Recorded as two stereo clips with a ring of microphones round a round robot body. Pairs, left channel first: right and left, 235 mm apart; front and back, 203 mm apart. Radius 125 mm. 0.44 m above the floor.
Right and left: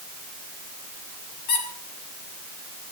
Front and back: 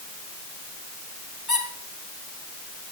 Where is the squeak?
90° right, 4.5 m.